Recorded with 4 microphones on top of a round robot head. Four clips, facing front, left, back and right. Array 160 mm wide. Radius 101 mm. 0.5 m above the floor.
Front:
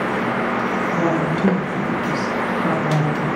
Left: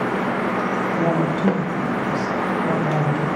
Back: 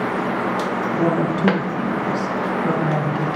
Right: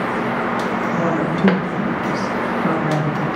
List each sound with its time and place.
0.9 s a woman speaking: 55° right, 5.5 m